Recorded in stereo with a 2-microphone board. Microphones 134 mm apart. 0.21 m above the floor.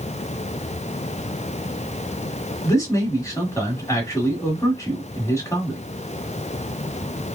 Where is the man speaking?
25° left (ahead or behind), 1.4 m.